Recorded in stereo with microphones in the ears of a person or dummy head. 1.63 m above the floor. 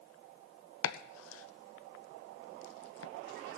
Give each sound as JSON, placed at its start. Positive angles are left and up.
{"t": 0.8, "sound": "chopping", "side_deg": 70, "distance_m": 0.6}